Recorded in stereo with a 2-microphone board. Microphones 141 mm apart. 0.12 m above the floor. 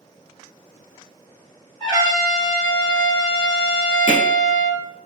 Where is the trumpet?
35° right (ahead or behind), 2.5 m.